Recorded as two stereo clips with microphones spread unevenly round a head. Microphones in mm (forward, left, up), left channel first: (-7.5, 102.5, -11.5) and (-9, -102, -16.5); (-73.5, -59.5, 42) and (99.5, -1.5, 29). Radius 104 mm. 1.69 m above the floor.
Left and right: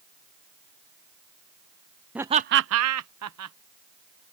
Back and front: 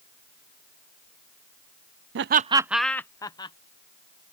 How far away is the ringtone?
I don't hear a ringtone.